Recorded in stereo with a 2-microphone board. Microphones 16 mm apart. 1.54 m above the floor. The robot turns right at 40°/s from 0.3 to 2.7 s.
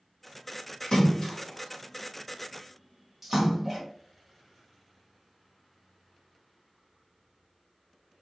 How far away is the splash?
About 1.3 m.